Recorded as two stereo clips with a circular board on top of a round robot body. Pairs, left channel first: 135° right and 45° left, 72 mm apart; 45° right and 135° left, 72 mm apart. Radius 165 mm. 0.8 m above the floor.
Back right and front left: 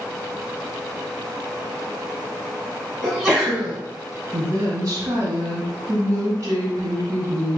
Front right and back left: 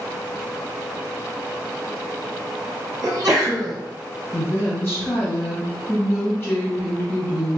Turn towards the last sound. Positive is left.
turn(degrees=15)